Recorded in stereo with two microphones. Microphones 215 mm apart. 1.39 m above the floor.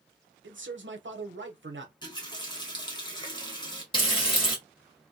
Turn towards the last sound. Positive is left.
turn(degrees=25)  # may be behind; listen again after turning